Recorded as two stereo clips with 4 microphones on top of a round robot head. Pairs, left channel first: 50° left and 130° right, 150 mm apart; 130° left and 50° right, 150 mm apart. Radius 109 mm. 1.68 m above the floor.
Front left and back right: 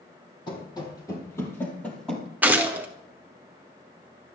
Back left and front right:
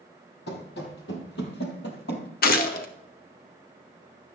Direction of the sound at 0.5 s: 110° left.